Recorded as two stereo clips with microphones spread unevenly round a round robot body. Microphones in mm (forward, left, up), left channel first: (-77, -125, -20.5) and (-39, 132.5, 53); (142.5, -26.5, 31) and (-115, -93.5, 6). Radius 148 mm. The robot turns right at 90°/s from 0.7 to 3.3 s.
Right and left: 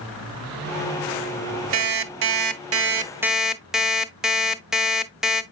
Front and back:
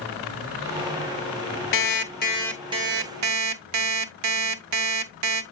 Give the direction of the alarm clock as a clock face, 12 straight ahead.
11 o'clock.